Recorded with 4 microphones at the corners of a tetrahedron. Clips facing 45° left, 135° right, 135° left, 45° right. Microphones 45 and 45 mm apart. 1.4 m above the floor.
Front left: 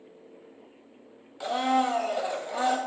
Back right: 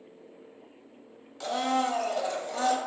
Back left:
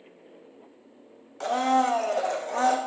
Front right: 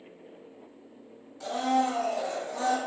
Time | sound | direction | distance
1.4 | a blender | 120° left | 0.8 m